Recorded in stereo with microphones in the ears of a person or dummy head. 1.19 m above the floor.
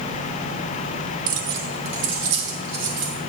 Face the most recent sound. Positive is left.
turn(degrees=-75)  # may be behind; listen again after turning